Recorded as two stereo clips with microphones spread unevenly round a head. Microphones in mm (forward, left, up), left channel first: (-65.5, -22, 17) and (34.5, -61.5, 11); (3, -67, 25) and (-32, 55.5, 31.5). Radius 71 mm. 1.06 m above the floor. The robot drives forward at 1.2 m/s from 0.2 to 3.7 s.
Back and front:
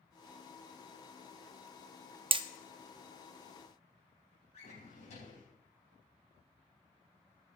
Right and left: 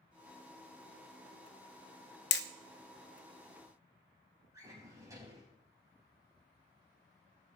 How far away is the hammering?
About 0.7 m.